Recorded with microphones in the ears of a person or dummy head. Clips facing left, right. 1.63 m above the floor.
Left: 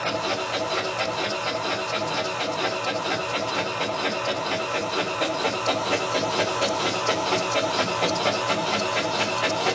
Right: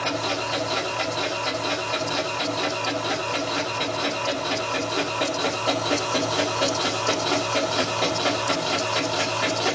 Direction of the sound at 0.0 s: 15° right (ahead or behind).